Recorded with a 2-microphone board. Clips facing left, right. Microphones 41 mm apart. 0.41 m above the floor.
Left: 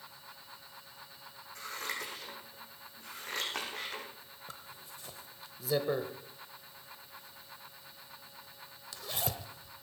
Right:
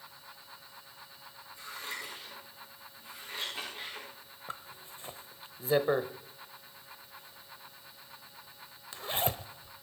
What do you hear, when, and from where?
1.6 s scissors: 85° left, 5 m
4.5 s a zipper: 35° right (ahead or behind), 0.8 m